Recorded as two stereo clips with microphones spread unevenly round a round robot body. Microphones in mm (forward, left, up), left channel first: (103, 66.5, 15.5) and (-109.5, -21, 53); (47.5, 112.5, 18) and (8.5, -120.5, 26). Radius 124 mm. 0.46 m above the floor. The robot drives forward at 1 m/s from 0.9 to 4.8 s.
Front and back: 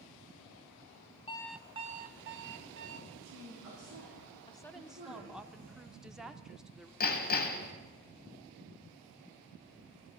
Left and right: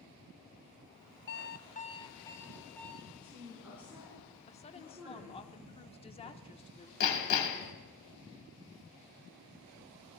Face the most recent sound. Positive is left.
turn(degrees=70)